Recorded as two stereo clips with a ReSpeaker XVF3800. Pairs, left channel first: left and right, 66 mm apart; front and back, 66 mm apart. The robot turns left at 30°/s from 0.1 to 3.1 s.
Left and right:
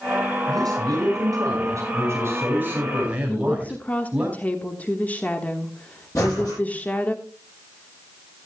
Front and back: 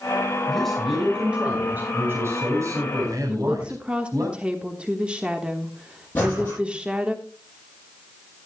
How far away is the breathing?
About 8 m.